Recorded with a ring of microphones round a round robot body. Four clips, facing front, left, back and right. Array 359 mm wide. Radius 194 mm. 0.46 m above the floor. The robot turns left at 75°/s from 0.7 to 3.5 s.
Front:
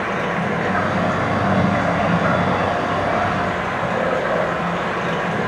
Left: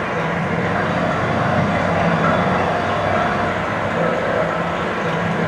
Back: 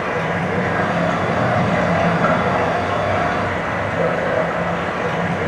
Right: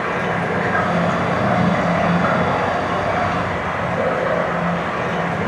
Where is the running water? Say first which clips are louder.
Even, back 1 dB; 105° right, 1.3 m; by 5.5 s 45° left, 1.3 m.